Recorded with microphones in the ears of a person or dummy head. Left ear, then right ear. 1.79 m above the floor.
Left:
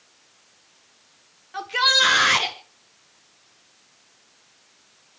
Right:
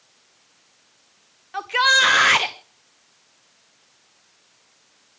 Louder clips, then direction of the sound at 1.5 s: Right 2 dB; 25° right (ahead or behind).